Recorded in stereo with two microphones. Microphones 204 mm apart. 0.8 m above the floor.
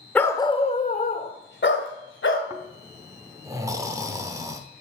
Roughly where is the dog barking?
Centre.